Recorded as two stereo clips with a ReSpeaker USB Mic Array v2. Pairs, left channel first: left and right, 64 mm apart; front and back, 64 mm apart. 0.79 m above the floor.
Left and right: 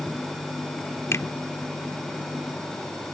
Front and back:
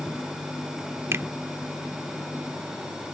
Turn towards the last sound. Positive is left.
turn(degrees=130)